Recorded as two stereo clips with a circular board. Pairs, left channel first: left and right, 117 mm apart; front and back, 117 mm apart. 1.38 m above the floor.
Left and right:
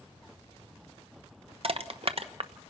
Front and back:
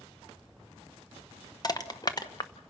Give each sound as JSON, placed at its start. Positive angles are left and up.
{"t": 1.6, "sound": "crushing", "azimuth_deg": -55, "distance_m": 0.9}